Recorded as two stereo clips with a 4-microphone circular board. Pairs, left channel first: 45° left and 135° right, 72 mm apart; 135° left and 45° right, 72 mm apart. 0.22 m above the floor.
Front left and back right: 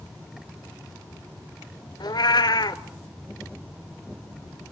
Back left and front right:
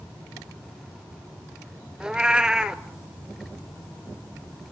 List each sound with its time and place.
2.0 s a cat meowing: 35° left, 0.7 m